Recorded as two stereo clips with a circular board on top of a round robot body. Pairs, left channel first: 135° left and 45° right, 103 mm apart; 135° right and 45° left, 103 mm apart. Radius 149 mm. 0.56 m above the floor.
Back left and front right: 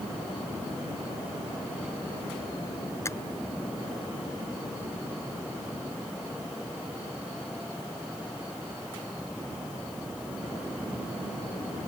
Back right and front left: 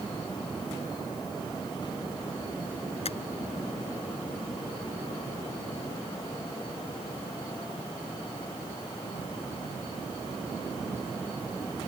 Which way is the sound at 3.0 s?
160° right.